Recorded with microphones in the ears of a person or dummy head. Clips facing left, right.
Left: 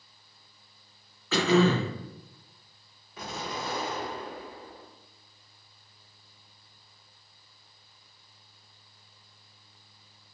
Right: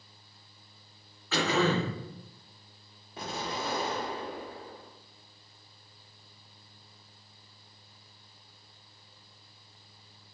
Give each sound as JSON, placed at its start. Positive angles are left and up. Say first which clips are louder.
{"t": 1.3, "sound": "throat clearing", "louder": "left 5 dB", "side_deg": 65, "distance_m": 0.6}
{"t": 3.2, "sound": "an explosion", "louder": "right 1 dB", "side_deg": -25, "distance_m": 0.6}